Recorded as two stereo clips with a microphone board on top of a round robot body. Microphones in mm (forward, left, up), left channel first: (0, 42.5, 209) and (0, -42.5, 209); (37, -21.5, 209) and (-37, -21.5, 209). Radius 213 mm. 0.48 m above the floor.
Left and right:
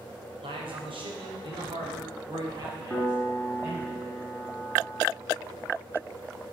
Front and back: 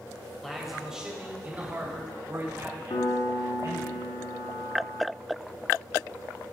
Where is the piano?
5° left, 2.5 m.